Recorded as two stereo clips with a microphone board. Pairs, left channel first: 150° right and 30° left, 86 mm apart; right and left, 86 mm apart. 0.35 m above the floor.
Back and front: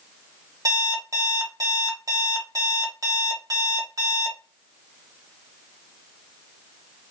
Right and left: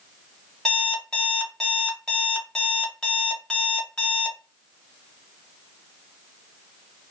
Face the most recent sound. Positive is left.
turn(degrees=-10)